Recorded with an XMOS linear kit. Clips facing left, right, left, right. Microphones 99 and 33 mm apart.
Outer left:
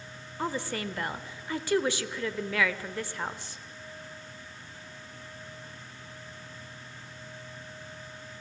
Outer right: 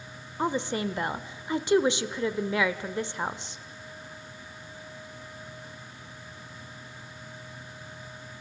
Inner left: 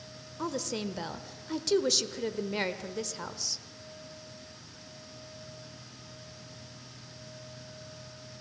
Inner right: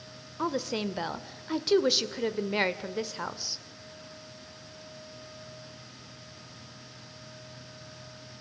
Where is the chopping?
I don't hear chopping.